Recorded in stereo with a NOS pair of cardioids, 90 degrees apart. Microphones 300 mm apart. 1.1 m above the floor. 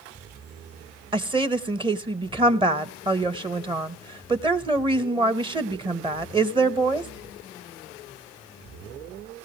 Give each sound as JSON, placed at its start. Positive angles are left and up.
{"t": 1.1, "sound": "a woman speaking", "azimuth_deg": -15, "distance_m": 1.1}